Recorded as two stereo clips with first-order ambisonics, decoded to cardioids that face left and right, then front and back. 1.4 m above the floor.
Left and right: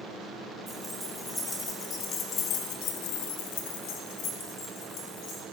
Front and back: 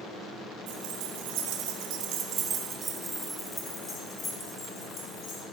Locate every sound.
0.7 s keys jangling: straight behind, 1.8 m; by 5.4 s 50° left, 2.5 m